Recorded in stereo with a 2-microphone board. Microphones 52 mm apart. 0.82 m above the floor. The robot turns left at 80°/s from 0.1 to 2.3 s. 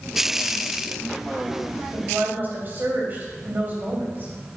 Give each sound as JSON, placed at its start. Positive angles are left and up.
{"t": 1.9, "sound": "a woman speaking", "azimuth_deg": -110, "distance_m": 3.5}